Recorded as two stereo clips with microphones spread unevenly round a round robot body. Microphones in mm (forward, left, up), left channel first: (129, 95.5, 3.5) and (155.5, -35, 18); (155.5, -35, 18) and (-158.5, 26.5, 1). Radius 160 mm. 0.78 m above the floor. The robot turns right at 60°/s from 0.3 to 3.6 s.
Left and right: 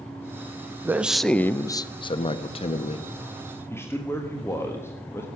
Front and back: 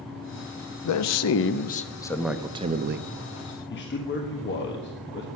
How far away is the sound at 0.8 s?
About 0.7 m.